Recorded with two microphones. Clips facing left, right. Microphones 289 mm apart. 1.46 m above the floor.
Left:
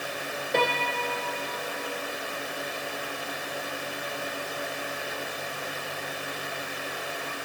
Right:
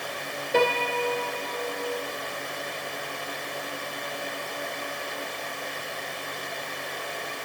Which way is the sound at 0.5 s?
5° right (ahead or behind).